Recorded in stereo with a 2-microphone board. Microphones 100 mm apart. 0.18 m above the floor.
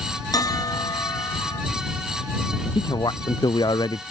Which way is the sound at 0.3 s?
40° left (ahead or behind).